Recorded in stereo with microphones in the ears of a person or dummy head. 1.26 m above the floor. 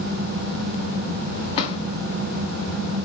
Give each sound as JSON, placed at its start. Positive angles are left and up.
{"t": 1.6, "sound": "a drawer", "side_deg": 35, "distance_m": 2.0}